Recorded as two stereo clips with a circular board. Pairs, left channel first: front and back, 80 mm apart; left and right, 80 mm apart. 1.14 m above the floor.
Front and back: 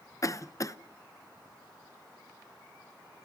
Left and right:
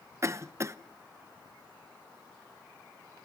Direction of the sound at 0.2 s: 40° right.